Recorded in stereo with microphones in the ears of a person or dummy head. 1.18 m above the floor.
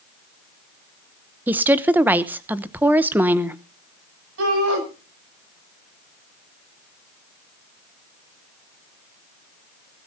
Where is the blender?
I don't hear a blender.